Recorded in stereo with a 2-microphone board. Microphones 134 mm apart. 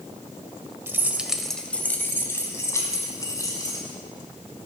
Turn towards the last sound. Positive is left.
turn(degrees=25)  # may be behind; listen again after turning